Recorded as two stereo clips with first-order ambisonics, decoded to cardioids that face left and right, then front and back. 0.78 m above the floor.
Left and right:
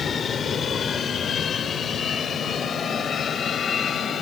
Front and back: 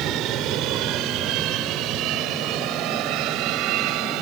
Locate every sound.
0.0 s an aircraft: 150° left